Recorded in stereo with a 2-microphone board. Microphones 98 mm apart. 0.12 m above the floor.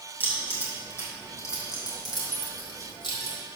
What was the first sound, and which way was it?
Keys jangling, 15° left (ahead or behind).